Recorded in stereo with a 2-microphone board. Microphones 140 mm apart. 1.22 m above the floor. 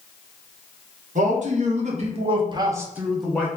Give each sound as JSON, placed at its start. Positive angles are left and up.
{"t": 1.1, "sound": "a man speaking", "side_deg": -70, "distance_m": 1.1}